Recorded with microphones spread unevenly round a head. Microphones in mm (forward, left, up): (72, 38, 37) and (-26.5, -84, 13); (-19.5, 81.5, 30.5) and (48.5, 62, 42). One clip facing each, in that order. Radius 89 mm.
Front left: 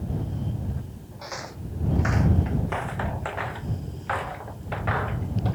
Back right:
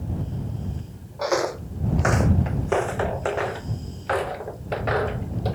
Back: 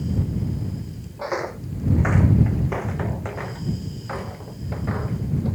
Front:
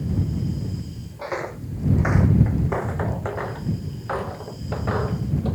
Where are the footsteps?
110° right; by 5.5 s 80° right.